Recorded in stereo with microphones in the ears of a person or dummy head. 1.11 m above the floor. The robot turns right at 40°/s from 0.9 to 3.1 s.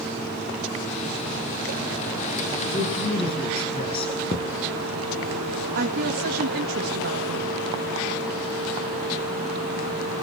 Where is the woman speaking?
55° right (ahead or behind), 1.7 m.